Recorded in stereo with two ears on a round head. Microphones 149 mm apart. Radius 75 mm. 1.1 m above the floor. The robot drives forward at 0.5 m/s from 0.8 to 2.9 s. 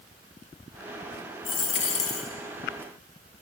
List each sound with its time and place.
1.4 s a dropped coin: 30° left (ahead or behind), 0.6 m; by 2.3 s 40° left (ahead or behind), 0.5 m